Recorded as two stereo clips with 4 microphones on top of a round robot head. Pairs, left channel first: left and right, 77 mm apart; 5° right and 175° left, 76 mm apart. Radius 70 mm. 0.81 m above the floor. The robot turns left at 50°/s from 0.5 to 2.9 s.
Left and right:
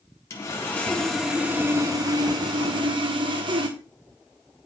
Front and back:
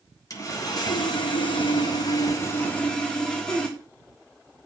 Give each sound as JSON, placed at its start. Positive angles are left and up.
{"t": 0.3, "sound": "sawing", "azimuth_deg": 35, "distance_m": 1.6}